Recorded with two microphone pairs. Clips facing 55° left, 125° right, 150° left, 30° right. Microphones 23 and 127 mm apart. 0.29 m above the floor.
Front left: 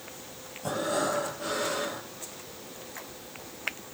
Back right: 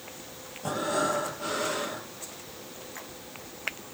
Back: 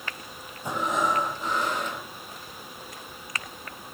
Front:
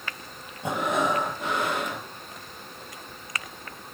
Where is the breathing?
50° right, 8 m.